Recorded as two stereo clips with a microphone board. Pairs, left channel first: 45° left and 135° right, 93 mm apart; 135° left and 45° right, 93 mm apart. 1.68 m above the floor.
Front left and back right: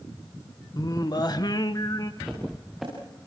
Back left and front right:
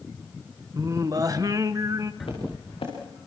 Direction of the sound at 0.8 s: 5° left.